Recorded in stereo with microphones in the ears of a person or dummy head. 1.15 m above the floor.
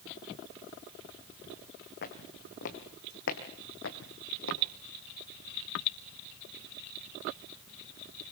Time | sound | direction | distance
2.0 | footsteps | 50° left (ahead or behind) | 3.5 m